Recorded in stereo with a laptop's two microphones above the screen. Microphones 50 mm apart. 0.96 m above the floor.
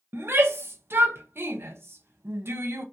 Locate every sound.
0.1 s a shout: 55° right (ahead or behind), 0.6 m